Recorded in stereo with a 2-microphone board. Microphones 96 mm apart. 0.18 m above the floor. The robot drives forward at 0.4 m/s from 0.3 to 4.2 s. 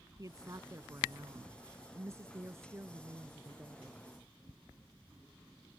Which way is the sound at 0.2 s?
35° right (ahead or behind).